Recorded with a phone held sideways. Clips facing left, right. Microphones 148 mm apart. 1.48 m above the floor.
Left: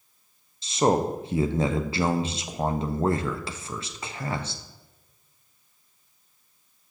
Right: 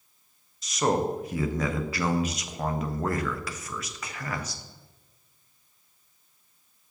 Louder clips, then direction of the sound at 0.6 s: Left 3 dB; 25° left (ahead or behind).